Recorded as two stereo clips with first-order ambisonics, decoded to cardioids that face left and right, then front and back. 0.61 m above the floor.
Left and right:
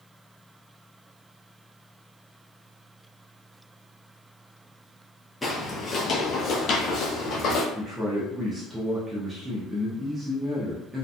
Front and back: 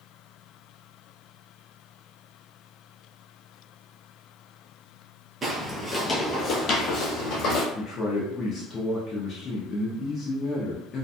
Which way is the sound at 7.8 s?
20° right.